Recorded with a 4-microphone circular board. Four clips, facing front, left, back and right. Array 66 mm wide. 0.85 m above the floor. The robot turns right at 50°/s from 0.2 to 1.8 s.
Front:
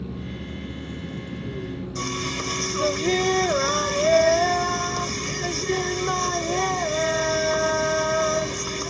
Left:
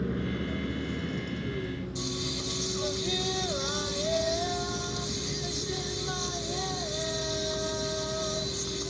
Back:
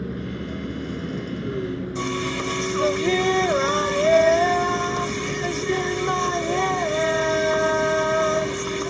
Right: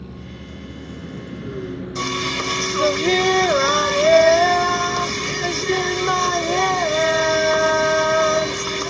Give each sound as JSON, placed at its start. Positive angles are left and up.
{"t": 0.0, "sound": "a vehicle", "azimuth_deg": 140}
{"t": 1.9, "sound": "singing", "azimuth_deg": -105}